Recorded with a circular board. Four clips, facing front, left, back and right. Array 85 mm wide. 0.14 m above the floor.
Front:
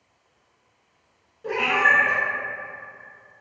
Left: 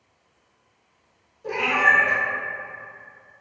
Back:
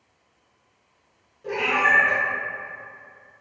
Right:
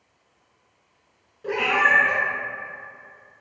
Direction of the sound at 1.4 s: 65° right.